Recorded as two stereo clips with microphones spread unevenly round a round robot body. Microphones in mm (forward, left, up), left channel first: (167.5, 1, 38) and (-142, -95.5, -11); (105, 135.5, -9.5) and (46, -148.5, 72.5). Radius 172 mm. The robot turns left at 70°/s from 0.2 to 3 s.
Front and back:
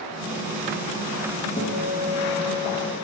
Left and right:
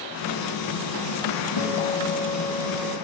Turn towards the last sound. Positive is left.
turn(degrees=-5)